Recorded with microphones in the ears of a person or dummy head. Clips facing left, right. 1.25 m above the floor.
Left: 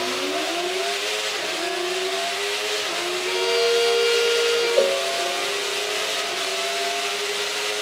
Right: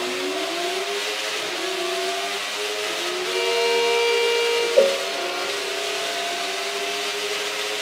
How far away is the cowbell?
About 0.6 m.